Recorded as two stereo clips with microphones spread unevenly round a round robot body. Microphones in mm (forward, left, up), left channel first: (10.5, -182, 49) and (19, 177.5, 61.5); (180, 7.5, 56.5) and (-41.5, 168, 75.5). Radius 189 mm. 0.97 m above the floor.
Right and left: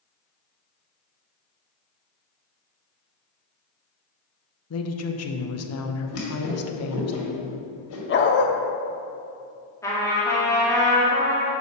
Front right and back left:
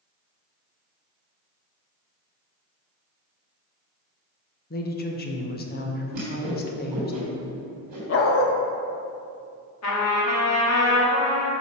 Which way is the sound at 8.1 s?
45° right.